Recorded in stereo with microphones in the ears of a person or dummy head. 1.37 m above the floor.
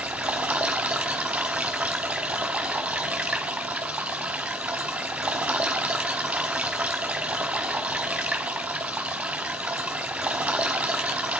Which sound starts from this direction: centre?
Running water, at 0.0 s.